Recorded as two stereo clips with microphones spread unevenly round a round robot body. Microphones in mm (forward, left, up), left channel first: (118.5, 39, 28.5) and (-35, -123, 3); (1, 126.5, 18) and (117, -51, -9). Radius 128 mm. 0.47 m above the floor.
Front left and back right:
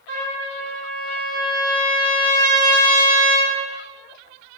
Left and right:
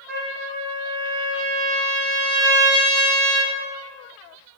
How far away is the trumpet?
About 1.9 m.